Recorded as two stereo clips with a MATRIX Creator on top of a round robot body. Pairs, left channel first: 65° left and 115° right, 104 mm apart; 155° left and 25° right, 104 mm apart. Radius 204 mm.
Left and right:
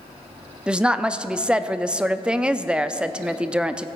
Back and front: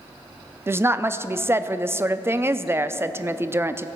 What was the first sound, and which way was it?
A woman speaking, 45° right.